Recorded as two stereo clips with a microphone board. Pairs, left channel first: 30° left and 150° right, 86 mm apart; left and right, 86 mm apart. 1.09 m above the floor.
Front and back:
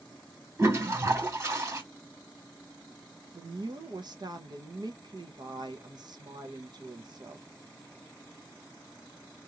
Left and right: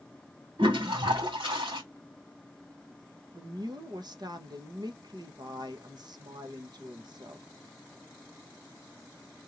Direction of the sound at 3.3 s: 120° right.